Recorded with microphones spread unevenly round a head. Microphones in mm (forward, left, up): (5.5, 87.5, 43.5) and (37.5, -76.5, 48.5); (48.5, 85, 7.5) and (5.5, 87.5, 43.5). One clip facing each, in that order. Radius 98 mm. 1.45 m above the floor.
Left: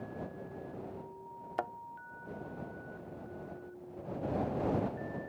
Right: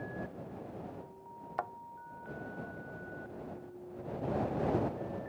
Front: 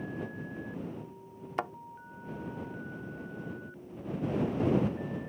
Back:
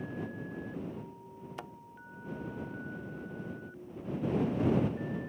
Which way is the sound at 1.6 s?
45° left.